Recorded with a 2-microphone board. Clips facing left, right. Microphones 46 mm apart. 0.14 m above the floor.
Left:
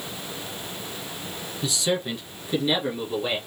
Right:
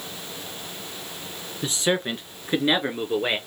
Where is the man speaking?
40° right (ahead or behind), 1.8 m; by 3.4 s 55° right (ahead or behind), 2.5 m.